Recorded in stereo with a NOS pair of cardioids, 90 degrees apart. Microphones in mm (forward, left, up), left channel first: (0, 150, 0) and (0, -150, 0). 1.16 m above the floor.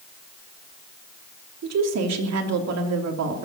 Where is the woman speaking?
60° right, 3 m.